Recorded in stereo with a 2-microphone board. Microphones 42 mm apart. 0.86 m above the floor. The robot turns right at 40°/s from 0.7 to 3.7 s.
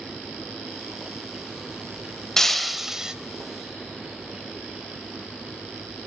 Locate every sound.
2.4 s breaking glass: 170° left, 1.0 m; by 3.1 s 160° right, 1.0 m